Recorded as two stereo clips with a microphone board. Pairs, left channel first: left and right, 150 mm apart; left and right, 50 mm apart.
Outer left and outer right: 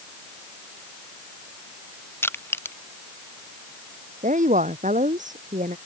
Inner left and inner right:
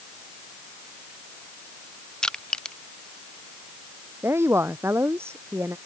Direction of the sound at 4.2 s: 55° right (ahead or behind).